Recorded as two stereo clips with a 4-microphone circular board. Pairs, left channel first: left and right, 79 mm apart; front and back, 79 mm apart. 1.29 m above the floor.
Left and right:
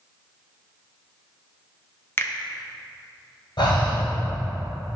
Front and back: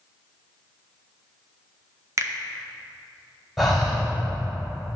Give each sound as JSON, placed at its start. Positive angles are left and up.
{"t": 2.2, "sound": "a finger snap", "azimuth_deg": 140, "distance_m": 0.6}
{"t": 3.6, "sound": "breathing", "azimuth_deg": 95, "distance_m": 2.5}